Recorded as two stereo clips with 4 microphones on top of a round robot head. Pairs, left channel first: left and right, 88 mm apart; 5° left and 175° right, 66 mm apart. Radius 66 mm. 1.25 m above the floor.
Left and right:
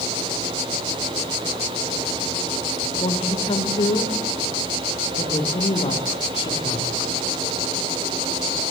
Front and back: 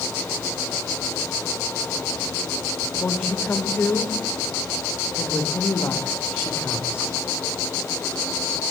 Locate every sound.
3.0 s a woman speaking: 60° left, 4.5 m